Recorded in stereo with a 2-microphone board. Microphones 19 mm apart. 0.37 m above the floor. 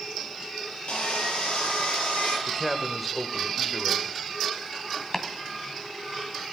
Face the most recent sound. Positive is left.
turn(degrees=25)  # may be behind; listen again after turning